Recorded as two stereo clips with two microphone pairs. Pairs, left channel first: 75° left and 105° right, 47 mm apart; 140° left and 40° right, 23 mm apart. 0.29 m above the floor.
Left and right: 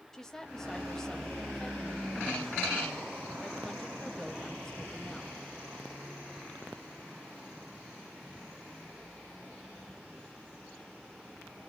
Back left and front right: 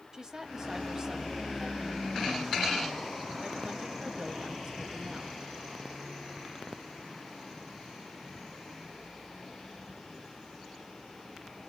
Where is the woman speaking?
5° left, 1.2 m.